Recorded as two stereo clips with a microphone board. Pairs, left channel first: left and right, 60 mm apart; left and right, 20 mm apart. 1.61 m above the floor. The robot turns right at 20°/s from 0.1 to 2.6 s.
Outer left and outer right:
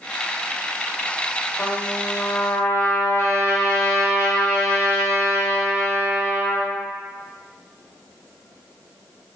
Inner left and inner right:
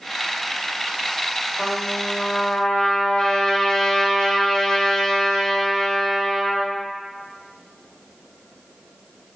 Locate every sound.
1.6 s a trumpet: 35° left (ahead or behind), 1.2 m; by 6.8 s 55° left (ahead or behind), 1.2 m